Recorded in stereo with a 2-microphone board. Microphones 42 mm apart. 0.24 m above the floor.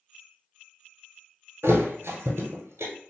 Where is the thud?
80° right, 0.8 m.